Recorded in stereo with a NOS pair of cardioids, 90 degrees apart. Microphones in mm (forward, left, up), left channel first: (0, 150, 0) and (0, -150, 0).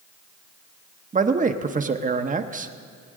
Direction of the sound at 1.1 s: 25° right.